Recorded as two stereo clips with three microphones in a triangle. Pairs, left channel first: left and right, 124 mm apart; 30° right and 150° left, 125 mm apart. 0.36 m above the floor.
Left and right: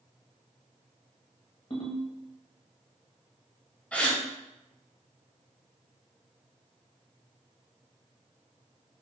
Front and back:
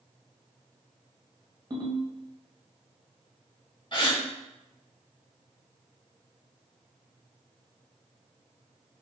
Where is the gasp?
10° left, 0.7 m.